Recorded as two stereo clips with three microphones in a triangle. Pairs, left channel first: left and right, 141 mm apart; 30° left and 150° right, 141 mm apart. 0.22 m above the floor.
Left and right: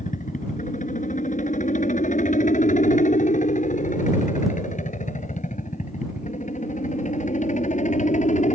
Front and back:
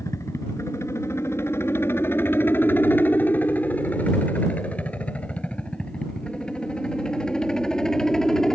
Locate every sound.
0.0 s a helicopter: 100° left; by 8.5 s 115° left